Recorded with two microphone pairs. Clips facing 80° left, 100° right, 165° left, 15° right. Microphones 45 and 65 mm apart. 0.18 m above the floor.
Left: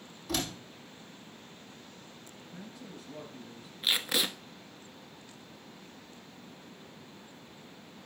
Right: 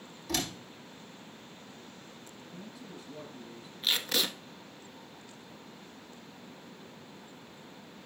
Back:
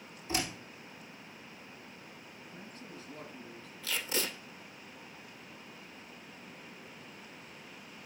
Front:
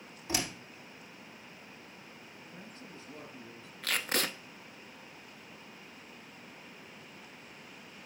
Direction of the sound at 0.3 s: 5° right.